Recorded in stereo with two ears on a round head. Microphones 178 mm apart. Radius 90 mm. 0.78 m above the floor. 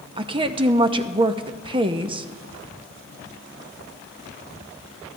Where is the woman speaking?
25° right (ahead or behind), 0.8 m.